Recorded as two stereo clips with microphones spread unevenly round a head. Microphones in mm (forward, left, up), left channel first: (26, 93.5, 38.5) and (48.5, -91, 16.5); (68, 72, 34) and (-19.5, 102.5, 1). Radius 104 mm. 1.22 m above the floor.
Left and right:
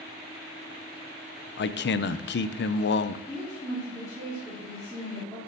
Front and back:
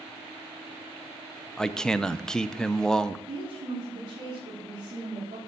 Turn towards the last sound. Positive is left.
turn(degrees=175)